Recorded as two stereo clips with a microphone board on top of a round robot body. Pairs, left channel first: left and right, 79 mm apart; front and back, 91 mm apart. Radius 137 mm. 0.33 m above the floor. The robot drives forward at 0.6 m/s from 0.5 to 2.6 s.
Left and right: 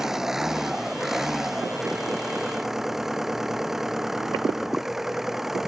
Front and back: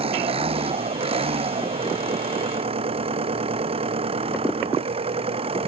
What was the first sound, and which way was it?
An engine running, 175° right.